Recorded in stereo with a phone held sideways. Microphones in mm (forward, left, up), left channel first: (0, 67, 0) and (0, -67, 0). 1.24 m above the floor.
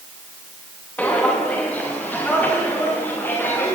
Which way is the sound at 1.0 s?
10° left (ahead or behind).